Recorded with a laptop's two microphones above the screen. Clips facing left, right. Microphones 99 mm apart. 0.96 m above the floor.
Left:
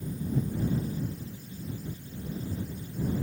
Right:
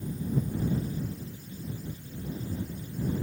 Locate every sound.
Only background noise.